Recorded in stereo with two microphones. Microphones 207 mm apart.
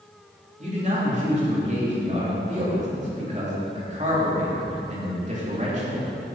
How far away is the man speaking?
About 3 m.